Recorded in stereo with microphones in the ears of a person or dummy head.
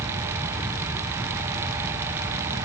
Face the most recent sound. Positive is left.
No sound to turn to.